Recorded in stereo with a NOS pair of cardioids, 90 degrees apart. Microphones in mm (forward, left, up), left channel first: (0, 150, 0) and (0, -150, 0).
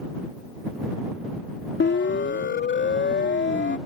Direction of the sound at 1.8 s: 35° left.